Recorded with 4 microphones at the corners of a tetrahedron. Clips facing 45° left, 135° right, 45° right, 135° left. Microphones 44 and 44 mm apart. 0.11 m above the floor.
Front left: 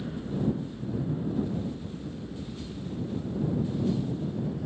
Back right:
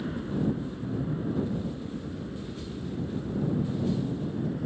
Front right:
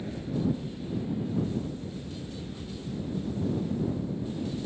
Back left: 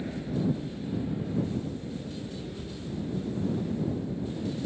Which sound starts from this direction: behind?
An aircraft, at 0.0 s.